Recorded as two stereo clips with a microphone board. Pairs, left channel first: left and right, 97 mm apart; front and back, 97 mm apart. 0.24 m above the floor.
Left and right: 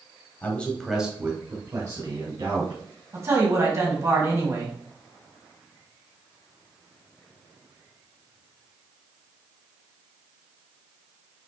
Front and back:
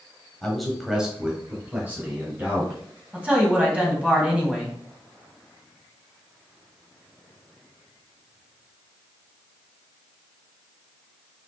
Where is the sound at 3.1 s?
110° right, 1.8 m.